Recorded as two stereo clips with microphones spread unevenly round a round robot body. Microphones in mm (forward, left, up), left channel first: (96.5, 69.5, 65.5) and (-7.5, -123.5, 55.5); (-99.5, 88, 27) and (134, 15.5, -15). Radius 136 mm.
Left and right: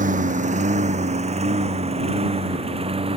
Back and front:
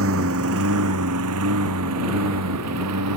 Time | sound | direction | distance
0.0 | a lawn mower | 65° right | ?